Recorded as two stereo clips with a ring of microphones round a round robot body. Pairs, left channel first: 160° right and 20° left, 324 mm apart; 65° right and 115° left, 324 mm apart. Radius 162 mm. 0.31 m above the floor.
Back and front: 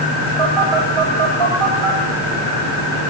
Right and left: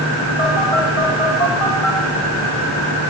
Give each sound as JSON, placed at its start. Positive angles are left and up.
{"t": 0.4, "sound": "a phone buzzing", "azimuth_deg": 20, "distance_m": 5.5}